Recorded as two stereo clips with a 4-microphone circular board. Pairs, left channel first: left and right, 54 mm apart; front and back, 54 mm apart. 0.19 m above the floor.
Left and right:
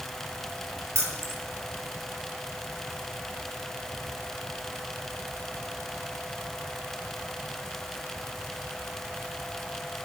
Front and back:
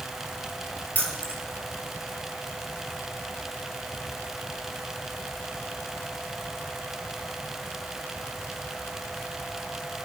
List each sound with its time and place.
0.9 s keys jangling: 60° right, 3.5 m